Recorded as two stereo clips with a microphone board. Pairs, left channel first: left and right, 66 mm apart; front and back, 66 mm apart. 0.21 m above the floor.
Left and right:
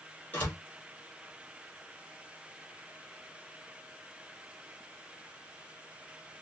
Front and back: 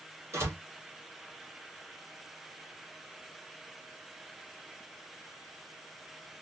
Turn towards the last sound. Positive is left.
turn(degrees=145)